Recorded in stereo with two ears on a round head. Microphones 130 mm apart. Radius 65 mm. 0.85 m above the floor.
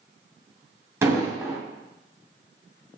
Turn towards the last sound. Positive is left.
turn(degrees=-20)  # may be behind; listen again after turning